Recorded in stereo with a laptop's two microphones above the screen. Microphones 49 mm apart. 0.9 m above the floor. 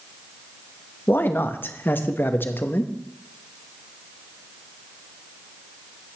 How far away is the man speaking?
About 0.7 m.